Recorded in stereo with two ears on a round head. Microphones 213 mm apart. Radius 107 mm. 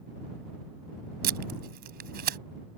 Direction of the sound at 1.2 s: 40° right (ahead or behind).